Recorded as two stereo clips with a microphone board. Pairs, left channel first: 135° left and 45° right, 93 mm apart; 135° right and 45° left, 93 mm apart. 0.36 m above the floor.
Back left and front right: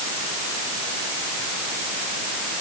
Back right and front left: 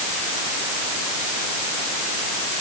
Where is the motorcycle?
I don't hear a motorcycle.